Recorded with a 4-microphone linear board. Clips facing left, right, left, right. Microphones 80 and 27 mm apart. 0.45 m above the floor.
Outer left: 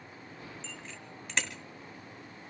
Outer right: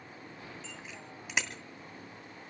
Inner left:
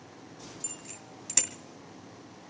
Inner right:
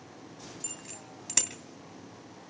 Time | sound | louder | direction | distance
0.6 | a bicycle bell | even, inner right 1 dB | 10° right (ahead or behind) | 2 m